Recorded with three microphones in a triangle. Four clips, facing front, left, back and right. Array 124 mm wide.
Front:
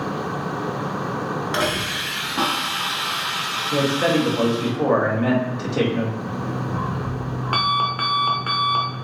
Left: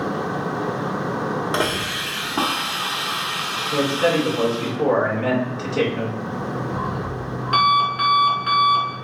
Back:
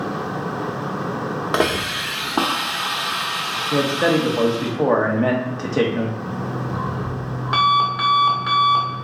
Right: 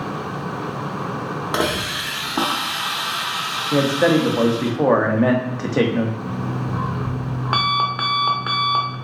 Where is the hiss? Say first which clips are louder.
Right 1 dB, back 3 dB; 175° right, 0.8 m.